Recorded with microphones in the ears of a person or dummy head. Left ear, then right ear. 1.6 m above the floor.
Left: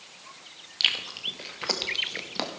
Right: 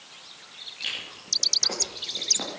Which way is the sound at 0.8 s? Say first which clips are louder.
Left 8 dB; 50° left (ahead or behind).